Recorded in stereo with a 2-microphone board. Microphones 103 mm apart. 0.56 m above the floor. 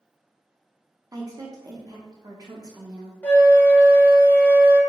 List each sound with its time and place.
1.1 s a woman speaking: 35° right (ahead or behind), 0.7 m
3.2 s a flute: 15° left (ahead or behind), 0.9 m